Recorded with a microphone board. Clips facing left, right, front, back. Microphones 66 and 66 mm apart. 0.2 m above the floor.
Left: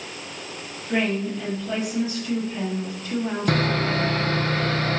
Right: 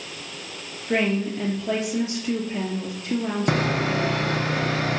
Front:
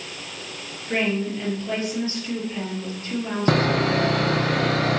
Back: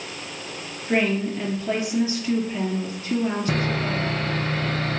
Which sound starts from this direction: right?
A woman speaking, at 0.9 s.